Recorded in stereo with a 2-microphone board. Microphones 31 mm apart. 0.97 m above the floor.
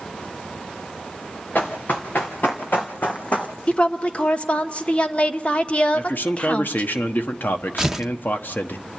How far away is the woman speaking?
About 1.1 m.